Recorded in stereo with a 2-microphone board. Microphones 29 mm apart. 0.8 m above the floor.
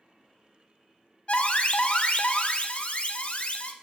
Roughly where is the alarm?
Left.